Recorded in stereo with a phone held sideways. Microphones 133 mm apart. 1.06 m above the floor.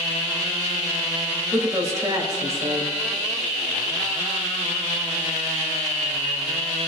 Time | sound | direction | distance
1.5 | a woman speaking | 25° right (ahead or behind) | 3.5 m